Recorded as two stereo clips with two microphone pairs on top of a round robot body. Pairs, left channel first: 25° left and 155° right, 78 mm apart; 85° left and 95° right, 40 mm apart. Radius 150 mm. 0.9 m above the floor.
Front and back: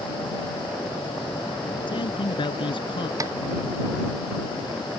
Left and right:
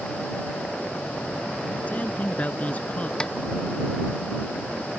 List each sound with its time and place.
1.9 s a man speaking: 35° left; by 3.1 s 30° left
3.2 s a snare drum: 155° left